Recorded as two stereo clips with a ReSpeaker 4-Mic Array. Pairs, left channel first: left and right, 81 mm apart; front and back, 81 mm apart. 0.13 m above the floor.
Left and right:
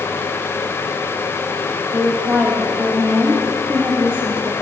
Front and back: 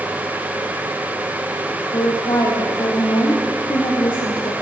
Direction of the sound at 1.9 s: 25° right.